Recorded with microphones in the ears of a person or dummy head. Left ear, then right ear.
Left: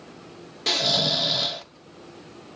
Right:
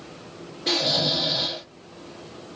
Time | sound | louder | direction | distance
0.7 | snoring | left 1 dB | 85° left | 0.8 m